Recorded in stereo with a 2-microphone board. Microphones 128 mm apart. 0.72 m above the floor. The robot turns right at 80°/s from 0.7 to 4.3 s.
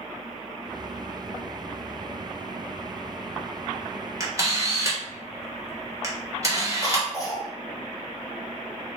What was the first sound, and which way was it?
A camera shutter, 25° right (ahead or behind).